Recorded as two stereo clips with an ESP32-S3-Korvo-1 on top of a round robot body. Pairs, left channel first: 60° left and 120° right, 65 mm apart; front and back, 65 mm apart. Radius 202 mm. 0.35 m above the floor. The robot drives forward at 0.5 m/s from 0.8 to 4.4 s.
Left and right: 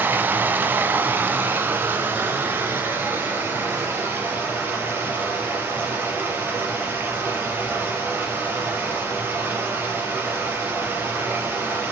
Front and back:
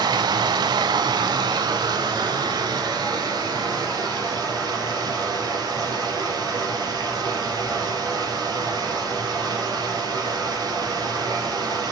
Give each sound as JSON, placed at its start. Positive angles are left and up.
{"t": 0.0, "sound": "running water", "azimuth_deg": 175, "distance_m": 0.9}